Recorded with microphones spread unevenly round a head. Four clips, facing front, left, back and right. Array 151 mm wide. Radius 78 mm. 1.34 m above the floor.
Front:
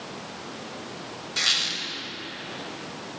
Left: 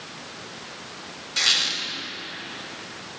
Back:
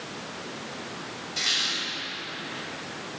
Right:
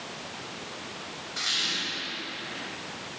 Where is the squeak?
65° left, 3.5 m.